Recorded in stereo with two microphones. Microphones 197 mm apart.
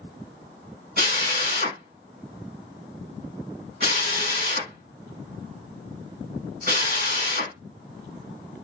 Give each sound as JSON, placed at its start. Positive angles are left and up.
{"t": 1.0, "sound": "a drill", "side_deg": -55, "distance_m": 2.0}